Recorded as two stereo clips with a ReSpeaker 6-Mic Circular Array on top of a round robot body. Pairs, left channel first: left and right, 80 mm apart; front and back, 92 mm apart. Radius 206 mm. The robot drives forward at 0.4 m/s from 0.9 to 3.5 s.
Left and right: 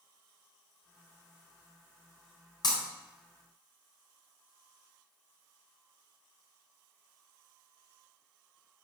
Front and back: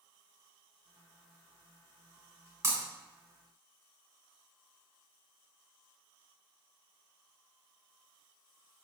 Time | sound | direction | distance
2.6 | breaking glass | 120° left | 3.5 m